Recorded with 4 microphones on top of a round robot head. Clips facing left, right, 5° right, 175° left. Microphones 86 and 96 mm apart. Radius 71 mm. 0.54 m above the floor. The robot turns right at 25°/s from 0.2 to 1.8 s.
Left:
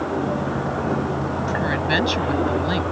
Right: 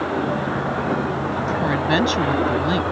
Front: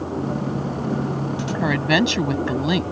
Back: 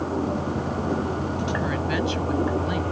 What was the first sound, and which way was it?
A woman speaking, 30° right.